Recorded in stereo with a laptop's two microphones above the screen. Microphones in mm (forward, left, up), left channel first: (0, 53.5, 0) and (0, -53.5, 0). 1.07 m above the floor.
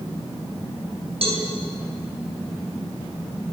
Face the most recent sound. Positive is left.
turn(degrees=-65)  # may be behind; listen again after turning